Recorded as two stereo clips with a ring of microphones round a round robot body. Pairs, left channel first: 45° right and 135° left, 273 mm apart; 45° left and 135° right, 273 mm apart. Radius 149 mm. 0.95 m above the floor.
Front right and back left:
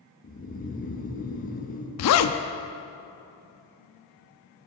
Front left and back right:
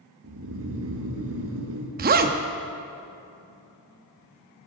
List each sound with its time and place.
0.2 s snoring: 105° right, 1.2 m
2.0 s a zipper: 75° right, 0.6 m